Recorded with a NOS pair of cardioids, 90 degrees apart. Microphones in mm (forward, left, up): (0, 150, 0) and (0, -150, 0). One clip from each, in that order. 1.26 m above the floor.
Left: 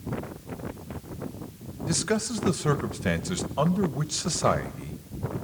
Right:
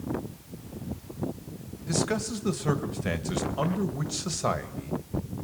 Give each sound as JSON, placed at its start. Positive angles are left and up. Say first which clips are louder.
{"t": 1.9, "sound": "a man speaking", "louder": "left 1 dB", "azimuth_deg": 20, "distance_m": 1.7}